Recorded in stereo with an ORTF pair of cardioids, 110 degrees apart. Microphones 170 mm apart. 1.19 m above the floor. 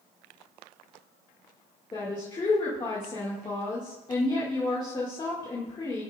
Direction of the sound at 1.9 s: 25° left.